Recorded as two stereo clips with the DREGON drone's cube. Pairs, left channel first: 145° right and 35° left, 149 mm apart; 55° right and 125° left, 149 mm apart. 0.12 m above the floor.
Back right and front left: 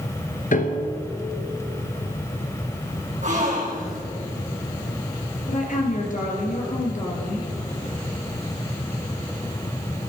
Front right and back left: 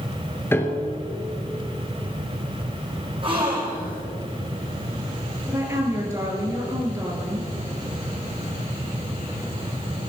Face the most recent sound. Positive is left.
turn(degrees=-165)